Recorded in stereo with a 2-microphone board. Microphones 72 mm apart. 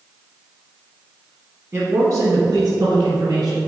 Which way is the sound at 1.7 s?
40° right (ahead or behind).